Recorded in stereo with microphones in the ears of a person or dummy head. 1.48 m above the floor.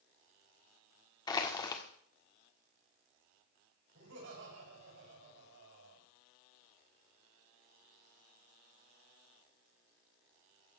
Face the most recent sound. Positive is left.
turn(degrees=-70)  # may be behind; listen again after turning